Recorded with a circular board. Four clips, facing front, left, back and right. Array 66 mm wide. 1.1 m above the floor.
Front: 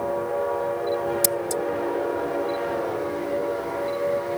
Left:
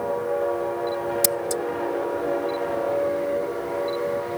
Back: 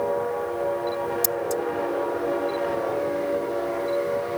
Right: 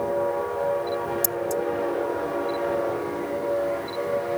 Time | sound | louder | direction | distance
1.2 | scissors | left 1 dB, even | 60° left | ?